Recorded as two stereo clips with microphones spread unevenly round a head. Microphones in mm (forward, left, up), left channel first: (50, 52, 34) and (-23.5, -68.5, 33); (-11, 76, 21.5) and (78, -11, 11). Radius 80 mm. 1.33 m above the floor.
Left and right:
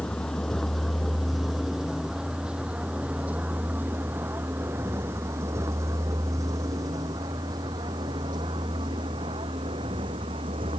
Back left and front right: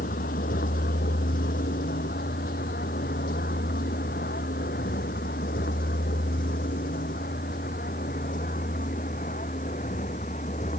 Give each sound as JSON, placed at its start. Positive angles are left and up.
{"t": 0.0, "sound": "a vehicle", "azimuth_deg": 145}